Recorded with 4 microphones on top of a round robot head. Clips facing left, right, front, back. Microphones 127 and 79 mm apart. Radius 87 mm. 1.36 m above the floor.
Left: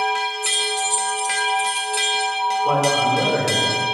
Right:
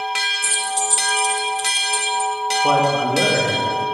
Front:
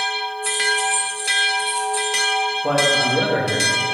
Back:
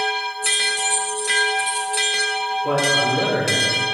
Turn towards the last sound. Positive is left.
turn(degrees=-60)